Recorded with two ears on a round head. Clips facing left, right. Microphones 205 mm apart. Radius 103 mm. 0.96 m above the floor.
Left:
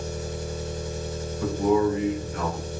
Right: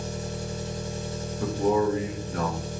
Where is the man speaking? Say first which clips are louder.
Left 2 dB; 30° right (ahead or behind), 0.7 m.